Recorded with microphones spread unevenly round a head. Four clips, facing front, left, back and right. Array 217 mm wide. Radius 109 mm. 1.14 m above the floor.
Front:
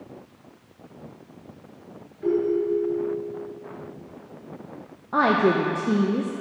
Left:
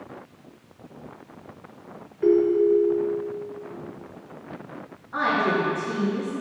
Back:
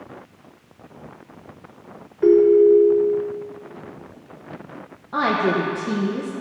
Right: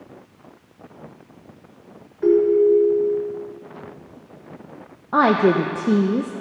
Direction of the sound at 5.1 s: 80° right.